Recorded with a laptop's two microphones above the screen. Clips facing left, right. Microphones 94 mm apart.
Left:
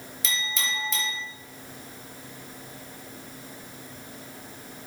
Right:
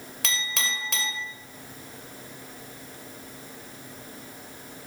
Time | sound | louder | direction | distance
0.2 | a clink | even | 70° right (ahead or behind) | 0.8 m